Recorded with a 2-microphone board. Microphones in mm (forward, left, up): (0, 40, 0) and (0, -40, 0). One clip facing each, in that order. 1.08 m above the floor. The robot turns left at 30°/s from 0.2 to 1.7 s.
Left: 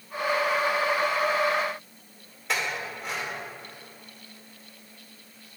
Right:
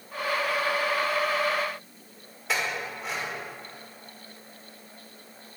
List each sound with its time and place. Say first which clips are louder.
2.5 s a clink: even; centre (ahead or behind), 2 m